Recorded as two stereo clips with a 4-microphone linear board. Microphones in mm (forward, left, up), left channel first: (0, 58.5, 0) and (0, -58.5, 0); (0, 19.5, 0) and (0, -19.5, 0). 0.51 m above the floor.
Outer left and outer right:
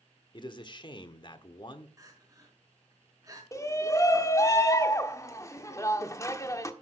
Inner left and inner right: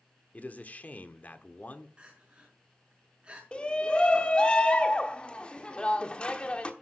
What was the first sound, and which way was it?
A man speaking, 40° left (ahead or behind).